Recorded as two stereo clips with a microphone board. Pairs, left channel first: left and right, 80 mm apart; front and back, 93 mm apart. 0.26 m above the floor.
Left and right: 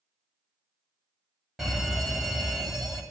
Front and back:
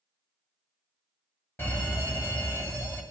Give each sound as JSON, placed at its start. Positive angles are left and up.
{"t": 1.6, "sound": "a fire alarm", "azimuth_deg": -10, "distance_m": 2.5}